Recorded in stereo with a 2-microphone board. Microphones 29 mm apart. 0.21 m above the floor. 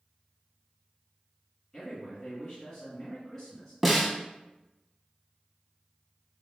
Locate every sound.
1.7 s a man speaking: 10° left (ahead or behind), 2.0 m
3.8 s a snare drum: centre (ahead or behind), 0.6 m